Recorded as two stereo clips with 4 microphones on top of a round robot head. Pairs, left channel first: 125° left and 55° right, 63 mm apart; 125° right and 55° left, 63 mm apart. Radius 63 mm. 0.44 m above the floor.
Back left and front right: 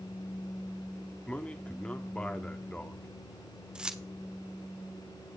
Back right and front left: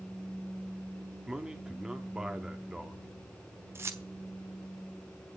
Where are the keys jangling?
20° left, 1.2 m.